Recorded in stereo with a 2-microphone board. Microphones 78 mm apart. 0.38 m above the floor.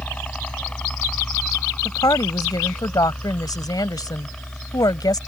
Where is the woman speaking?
55° left (ahead or behind).